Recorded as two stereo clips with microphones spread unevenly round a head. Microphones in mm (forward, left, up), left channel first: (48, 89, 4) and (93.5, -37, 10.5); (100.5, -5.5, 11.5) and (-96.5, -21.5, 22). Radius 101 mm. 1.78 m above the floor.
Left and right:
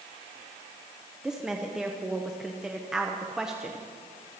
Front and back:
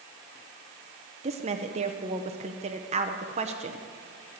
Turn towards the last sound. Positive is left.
turn(degrees=-150)